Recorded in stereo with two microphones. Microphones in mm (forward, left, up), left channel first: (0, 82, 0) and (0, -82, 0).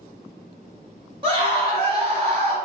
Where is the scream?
35° right (ahead or behind), 1.4 m.